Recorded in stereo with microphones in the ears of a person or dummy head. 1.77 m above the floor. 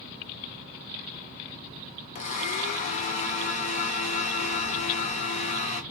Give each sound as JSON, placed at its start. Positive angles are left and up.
{"t": 2.1, "sound": "a blender", "side_deg": 40, "distance_m": 0.5}